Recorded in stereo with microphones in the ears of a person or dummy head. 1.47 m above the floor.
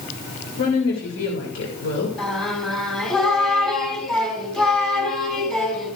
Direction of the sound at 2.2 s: 5° left (ahead or behind).